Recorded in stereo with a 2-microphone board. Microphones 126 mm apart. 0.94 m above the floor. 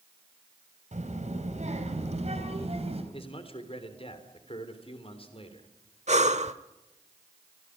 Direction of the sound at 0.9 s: 70° right (ahead or behind).